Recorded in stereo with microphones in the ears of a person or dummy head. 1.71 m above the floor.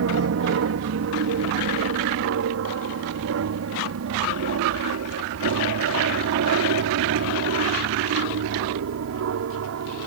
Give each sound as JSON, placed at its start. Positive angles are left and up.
{"t": 0.0, "sound": "an aircraft", "side_deg": -70}